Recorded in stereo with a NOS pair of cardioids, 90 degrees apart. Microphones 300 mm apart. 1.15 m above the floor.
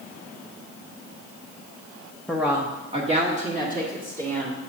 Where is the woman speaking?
5° left, 0.8 m; by 4.6 s 30° right, 3 m.